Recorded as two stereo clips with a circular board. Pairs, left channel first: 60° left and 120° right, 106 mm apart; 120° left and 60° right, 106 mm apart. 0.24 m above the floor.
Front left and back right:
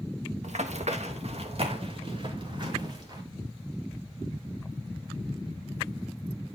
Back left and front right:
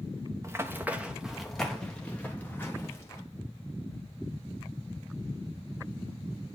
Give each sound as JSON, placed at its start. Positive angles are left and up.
{"t": 0.4, "sound": "running footsteps", "azimuth_deg": -125, "distance_m": 1.1}